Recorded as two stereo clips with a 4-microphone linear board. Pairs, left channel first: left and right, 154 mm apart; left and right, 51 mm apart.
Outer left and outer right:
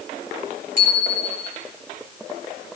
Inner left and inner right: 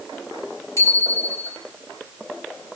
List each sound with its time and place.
0.8 s a bicycle bell: 65° left (ahead or behind), 6.5 m